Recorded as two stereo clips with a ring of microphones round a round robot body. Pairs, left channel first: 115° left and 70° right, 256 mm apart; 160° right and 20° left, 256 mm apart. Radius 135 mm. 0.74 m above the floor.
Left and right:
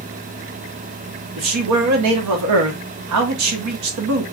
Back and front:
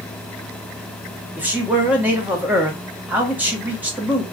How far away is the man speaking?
About 1.2 m.